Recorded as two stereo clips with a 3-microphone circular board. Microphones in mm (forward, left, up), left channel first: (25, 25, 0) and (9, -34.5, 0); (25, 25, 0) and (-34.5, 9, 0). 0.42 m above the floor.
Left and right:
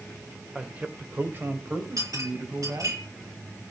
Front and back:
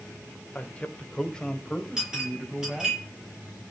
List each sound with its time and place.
0.6 s a man speaking: 35° right, 1.6 m; by 3.0 s 75° right, 3.5 m
2.0 s a clink: 85° right, 8 m